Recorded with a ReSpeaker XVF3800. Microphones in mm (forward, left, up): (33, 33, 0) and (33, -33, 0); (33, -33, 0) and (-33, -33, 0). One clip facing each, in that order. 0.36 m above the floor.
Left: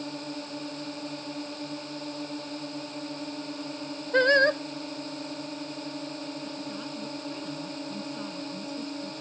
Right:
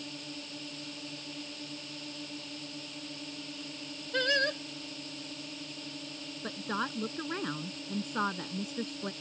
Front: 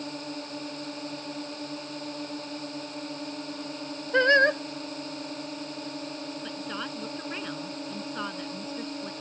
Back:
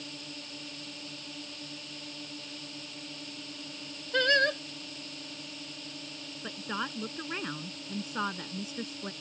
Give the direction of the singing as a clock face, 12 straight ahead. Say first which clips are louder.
Left 9 dB, front 6 dB; 10 o'clock.